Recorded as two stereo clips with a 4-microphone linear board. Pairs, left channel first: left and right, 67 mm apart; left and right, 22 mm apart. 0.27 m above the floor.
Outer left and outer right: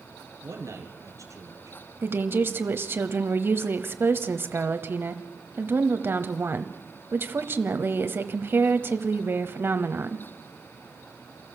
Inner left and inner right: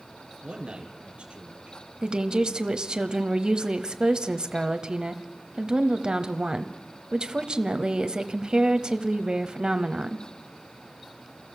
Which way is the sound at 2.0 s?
35° right (ahead or behind).